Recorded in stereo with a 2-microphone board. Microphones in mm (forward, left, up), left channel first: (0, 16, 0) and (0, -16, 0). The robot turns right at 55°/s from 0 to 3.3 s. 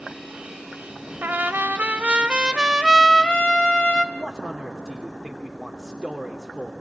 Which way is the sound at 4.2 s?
Centre (ahead or behind).